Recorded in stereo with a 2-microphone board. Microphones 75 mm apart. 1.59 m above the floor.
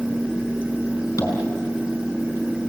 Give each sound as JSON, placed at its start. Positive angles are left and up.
{"t": 1.2, "sound": "tapping", "side_deg": 45, "distance_m": 5.0}